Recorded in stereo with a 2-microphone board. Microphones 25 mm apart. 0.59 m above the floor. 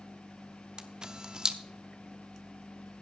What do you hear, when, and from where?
0.8 s a camera shutter: 30° right (ahead or behind), 0.6 m